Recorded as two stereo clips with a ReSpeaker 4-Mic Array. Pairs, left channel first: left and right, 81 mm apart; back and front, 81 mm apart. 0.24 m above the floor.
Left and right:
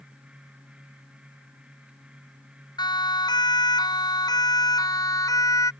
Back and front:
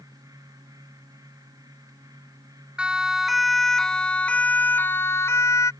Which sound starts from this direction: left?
A siren, at 2.8 s.